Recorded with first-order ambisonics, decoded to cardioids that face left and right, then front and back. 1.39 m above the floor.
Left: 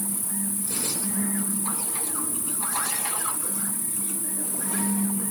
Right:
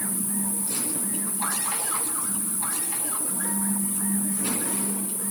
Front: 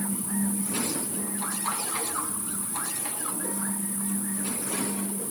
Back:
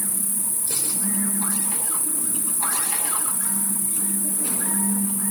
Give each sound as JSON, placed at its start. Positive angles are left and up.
{"t": 0.0, "sound": "an insect", "azimuth_deg": 170, "distance_m": 1.9}